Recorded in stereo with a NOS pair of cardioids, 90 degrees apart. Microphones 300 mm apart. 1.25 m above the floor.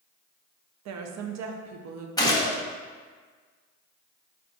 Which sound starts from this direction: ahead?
A gunshot, at 2.2 s.